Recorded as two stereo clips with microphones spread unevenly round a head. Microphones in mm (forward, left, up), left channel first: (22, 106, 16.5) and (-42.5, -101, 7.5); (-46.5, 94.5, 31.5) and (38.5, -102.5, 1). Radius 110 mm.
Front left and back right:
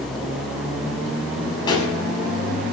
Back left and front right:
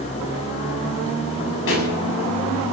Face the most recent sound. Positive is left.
turn(degrees=145)